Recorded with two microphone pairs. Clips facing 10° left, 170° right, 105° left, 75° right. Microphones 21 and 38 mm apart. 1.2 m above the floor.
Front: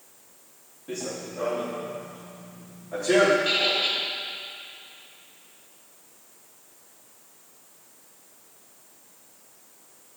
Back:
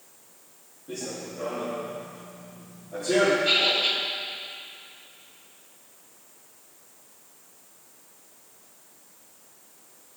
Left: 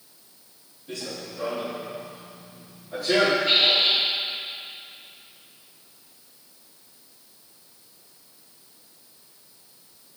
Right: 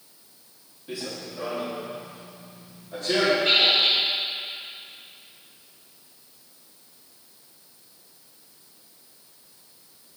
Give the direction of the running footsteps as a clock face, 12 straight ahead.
12 o'clock.